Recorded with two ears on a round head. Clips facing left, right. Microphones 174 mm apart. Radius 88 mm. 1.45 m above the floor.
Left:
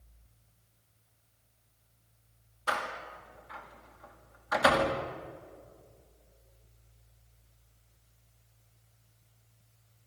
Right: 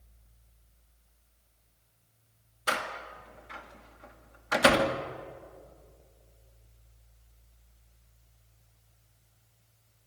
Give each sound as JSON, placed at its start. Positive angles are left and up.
{"t": 2.7, "sound": "a door slam", "side_deg": -30, "distance_m": 1.9}